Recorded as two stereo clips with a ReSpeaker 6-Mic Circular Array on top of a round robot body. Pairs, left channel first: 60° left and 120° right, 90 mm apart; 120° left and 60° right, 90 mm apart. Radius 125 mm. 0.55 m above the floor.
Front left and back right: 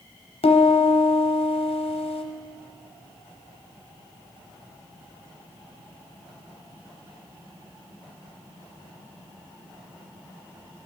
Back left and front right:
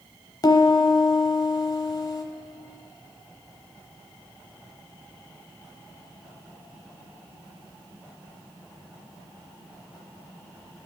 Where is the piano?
70° left, 0.7 m.